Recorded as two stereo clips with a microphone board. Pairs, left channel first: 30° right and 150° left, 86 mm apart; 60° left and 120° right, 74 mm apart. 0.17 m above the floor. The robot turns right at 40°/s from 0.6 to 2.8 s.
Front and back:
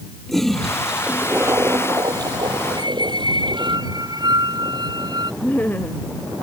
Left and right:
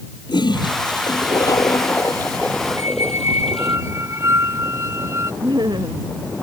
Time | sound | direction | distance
0.3 | a toilet flushing | 55° left | ?
2.8 | a squeak | 175° right | ?
5.4 | laughter | 100° right | ?